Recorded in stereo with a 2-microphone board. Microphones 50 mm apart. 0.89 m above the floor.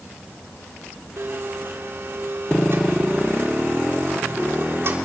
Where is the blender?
55° right (ahead or behind), 3 m.